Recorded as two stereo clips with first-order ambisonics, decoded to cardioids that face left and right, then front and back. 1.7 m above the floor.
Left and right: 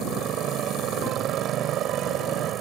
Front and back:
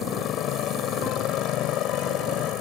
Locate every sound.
0.0 s a motorcycle: 45° right